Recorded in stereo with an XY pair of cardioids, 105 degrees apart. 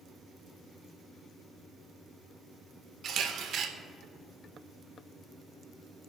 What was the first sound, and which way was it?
A camera shutter, 60° right.